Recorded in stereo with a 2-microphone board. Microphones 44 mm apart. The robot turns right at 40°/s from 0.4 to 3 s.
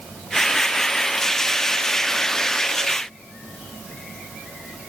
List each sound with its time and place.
Only background noise.